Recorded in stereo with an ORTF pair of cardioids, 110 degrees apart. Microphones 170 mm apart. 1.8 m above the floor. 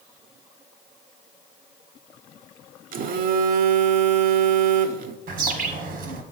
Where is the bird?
65° right, 1.4 m.